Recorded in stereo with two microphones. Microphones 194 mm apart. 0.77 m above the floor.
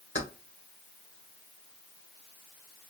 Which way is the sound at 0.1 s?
85° left.